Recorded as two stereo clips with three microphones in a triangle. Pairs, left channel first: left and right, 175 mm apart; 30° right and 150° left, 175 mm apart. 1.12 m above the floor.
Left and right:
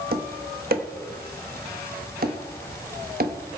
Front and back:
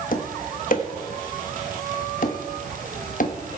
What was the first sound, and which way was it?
Tapping, 65° right.